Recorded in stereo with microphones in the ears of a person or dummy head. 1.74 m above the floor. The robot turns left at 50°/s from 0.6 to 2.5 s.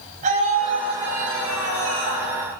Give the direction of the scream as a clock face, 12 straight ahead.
1 o'clock.